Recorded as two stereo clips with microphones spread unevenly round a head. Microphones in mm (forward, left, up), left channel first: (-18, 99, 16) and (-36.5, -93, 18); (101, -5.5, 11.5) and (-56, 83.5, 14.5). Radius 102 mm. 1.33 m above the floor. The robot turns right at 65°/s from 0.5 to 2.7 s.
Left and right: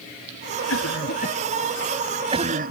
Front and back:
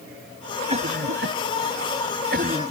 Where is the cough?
95° left; by 2.7 s 135° right.